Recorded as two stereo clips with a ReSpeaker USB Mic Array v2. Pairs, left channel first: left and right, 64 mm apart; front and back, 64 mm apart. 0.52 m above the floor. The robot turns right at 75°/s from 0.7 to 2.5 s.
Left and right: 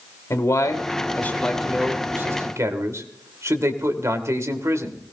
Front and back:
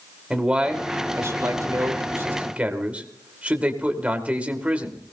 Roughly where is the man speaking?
Left.